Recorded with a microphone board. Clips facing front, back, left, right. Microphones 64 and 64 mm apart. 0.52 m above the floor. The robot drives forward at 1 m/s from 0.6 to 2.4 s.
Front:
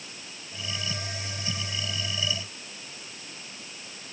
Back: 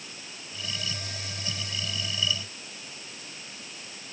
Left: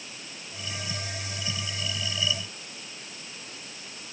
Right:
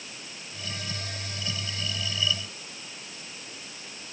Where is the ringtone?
No ringtone in this recording.